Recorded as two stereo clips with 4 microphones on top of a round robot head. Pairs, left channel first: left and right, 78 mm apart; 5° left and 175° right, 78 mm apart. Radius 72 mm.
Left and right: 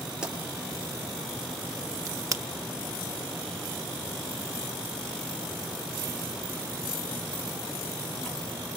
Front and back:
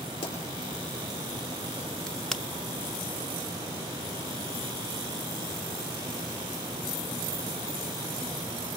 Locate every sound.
0.2 s a pop: 10° right, 4.5 m
2.1 s a crack: 75° right, 0.8 m